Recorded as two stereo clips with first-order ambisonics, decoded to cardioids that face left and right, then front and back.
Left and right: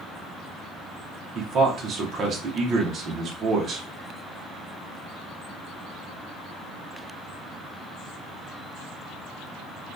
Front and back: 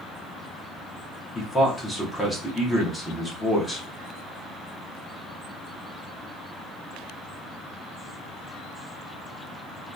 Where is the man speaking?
75° right, 0.7 m.